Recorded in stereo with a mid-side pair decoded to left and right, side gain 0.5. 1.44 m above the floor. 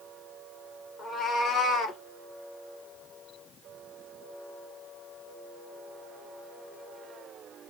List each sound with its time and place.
1.0 s a cat meowing: 55° left, 2.5 m; by 2.0 s 65° left, 1.5 m